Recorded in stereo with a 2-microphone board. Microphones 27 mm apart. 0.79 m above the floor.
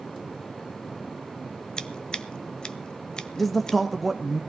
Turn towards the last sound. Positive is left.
turn(degrees=5)  # may be behind; listen again after turning